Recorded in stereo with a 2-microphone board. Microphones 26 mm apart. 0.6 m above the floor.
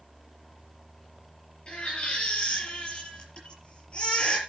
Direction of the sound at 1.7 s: 40° left (ahead or behind).